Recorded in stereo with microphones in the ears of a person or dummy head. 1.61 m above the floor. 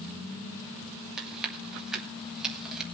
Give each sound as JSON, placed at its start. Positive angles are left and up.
{"t": 1.2, "sound": "chewing", "side_deg": -5, "distance_m": 2.5}